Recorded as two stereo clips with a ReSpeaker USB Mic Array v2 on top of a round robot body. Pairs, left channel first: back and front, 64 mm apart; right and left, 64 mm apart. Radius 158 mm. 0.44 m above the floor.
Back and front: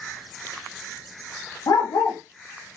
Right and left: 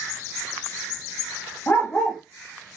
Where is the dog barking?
155° right, 0.5 m.